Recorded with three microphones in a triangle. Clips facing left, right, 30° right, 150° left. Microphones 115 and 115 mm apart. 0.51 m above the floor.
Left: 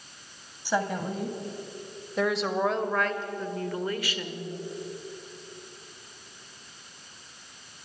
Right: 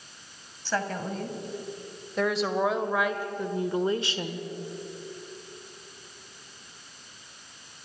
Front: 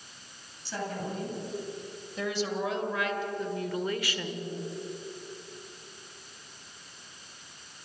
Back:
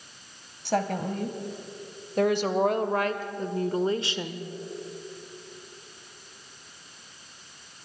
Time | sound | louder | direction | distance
0.7 | a woman speaking | left 2 dB, back 8 dB | 165° left | 2.5 m